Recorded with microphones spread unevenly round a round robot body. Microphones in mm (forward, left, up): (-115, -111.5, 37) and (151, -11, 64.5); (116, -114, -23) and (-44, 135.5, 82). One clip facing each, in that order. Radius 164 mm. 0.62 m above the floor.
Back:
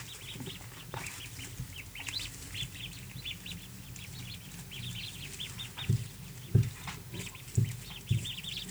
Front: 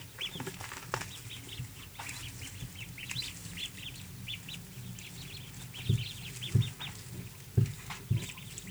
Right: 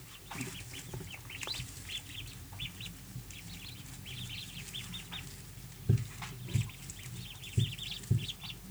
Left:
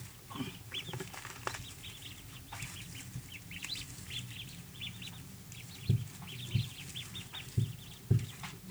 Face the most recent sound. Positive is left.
No sound to turn to.